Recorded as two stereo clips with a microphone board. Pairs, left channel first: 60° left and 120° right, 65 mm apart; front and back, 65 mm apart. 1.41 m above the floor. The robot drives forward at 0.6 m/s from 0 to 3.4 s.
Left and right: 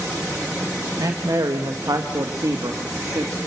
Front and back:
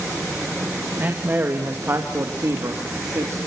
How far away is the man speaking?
About 2 m.